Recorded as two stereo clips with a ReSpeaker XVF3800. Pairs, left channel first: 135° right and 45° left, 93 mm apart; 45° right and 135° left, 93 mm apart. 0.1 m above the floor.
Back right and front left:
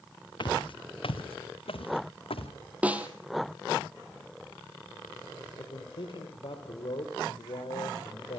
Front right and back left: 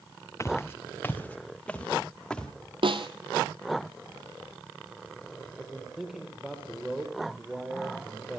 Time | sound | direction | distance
0.4 | footsteps | 105° right | 1.3 m
2.8 | a snare drum | 120° left | 1.3 m
5.5 | a man speaking | 140° right | 3.5 m